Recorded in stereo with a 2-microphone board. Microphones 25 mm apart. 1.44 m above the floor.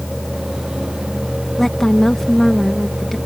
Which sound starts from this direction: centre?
A woman speaking, at 1.6 s.